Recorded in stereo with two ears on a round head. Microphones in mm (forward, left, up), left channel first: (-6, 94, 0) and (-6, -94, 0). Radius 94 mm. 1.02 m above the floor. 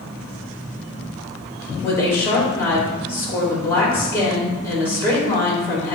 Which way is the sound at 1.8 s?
10° left (ahead or behind).